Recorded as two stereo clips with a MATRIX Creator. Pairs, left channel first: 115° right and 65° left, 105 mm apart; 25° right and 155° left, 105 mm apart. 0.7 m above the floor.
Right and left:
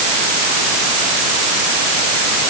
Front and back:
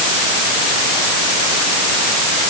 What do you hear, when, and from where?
Only background noise.